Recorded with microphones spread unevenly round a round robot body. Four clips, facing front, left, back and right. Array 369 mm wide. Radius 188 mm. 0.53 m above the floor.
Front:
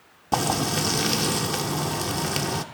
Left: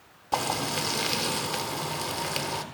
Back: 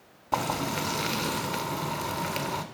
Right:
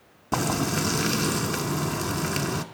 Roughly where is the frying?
Ahead right.